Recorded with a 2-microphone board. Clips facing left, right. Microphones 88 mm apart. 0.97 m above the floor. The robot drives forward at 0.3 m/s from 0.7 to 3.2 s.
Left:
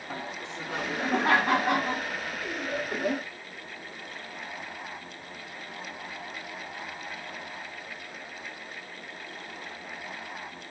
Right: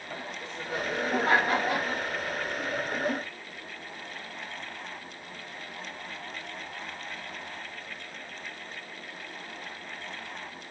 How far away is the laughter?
About 1.4 m.